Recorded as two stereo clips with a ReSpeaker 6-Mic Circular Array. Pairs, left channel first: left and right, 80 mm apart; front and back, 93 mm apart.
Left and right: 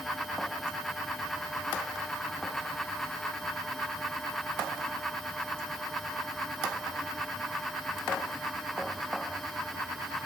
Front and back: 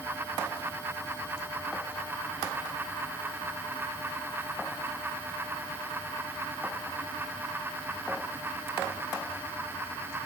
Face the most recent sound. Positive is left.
No sound to turn to.